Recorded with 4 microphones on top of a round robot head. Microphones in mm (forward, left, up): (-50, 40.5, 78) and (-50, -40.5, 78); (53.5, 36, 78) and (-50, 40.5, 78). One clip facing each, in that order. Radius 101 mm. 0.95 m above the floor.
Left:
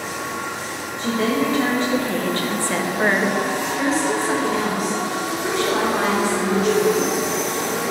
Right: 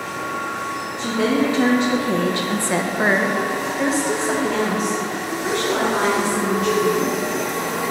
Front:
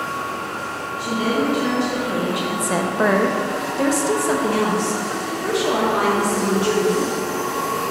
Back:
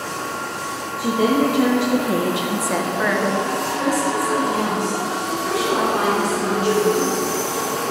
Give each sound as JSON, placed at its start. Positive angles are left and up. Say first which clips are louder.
{"t": 1.0, "sound": "a woman speaking", "louder": "right 1 dB, back 4 dB", "azimuth_deg": -165, "distance_m": 1.4}